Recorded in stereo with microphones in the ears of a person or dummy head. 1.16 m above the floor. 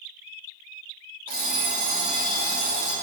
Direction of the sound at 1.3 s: 45° right (ahead or behind).